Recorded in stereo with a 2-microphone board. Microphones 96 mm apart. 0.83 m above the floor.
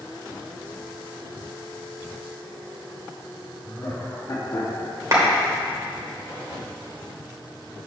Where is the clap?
35° right (ahead or behind), 2.5 m.